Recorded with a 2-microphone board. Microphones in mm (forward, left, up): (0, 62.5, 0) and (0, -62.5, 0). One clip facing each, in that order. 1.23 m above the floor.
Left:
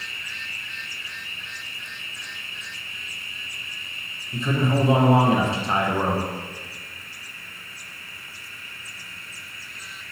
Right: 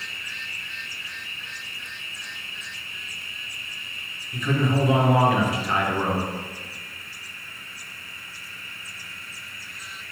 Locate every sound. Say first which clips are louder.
4.3 s a man speaking: left 1 dB; 25° left (ahead or behind), 0.7 m